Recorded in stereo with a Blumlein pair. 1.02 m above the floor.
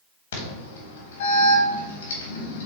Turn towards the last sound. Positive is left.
turn(degrees=65)